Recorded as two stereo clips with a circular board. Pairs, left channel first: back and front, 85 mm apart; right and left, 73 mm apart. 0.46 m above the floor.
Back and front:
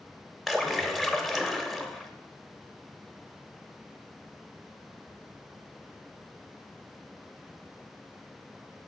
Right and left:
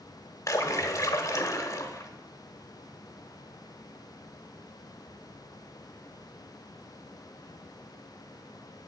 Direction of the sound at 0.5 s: 90° right.